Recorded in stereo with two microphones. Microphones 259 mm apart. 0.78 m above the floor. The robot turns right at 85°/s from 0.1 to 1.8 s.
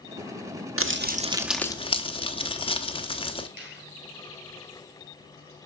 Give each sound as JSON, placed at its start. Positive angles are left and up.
{"t": 0.8, "sound": "crumpling", "azimuth_deg": -65, "distance_m": 1.0}
{"t": 3.6, "sound": "a finger snap", "side_deg": -50, "distance_m": 6.0}